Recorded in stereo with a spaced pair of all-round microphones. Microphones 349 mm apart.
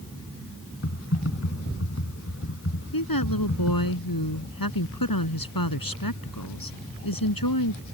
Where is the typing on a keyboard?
40° left (ahead or behind).